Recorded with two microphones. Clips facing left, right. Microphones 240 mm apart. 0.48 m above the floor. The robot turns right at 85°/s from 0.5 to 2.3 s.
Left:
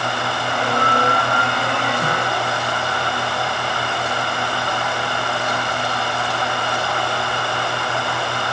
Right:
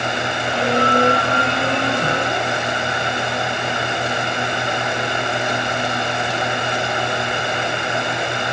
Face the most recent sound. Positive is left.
No sound to turn to.